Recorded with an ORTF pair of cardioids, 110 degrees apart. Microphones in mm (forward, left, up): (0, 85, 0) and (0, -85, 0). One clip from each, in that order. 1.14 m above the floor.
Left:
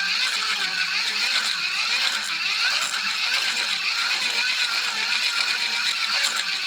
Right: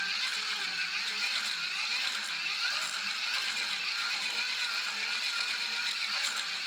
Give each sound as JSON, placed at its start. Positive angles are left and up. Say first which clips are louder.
{"t": 0.0, "sound": "a machine running", "louder": "left 9 dB", "azimuth_deg": 55, "distance_m": 0.7}